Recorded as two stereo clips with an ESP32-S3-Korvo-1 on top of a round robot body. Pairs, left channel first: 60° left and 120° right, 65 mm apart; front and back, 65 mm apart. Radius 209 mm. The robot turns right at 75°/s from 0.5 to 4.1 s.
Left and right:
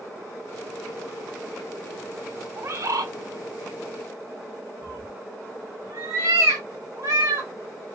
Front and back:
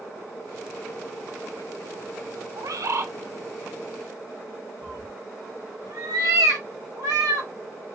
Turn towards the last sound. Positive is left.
turn(degrees=-165)